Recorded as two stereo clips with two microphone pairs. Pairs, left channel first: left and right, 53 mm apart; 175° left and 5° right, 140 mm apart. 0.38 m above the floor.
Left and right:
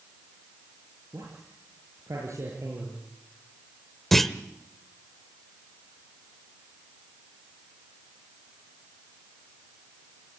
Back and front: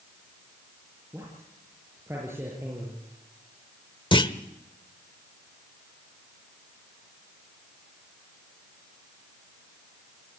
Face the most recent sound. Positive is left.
turn(degrees=170)